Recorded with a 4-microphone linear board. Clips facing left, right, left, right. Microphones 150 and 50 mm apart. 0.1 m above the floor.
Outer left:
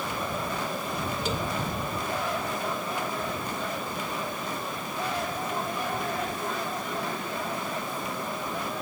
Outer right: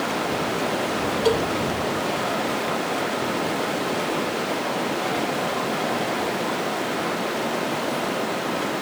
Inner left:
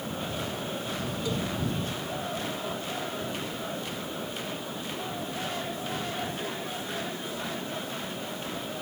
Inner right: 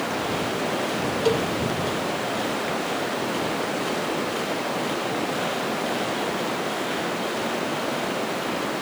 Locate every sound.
0.0 s running water: 85° right
1.2 s a cowbell: 65° right (ahead or behind)